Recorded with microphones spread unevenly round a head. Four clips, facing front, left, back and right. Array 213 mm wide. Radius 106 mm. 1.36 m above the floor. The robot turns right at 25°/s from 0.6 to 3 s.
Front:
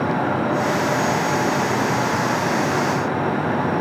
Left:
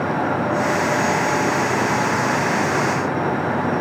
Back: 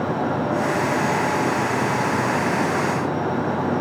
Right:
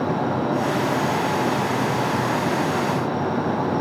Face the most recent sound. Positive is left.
No sound to turn to.